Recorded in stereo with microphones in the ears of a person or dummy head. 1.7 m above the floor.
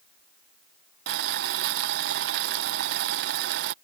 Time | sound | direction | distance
1.1 | boiling | 60° right (ahead or behind) | ?